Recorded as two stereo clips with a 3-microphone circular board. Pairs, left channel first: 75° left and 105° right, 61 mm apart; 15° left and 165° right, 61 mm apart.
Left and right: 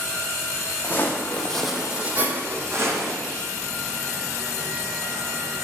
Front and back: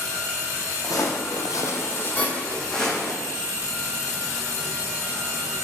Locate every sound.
0.8 s footsteps: 25° left, 0.8 m; by 3.2 s 75° right, 1.1 m
2.2 s a squeak: 70° right, 1.1 m